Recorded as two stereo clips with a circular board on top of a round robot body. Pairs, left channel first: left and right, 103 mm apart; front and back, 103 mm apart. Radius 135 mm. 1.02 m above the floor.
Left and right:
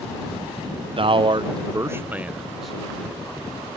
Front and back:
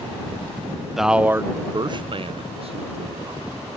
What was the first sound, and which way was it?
A man speaking, 95° right.